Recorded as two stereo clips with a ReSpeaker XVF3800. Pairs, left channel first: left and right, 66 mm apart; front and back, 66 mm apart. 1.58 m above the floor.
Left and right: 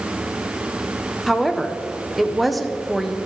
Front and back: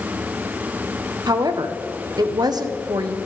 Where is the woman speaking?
Straight behind, 1.2 m.